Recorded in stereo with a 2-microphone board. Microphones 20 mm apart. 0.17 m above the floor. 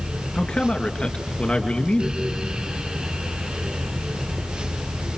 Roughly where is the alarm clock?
No alarm clock in this recording.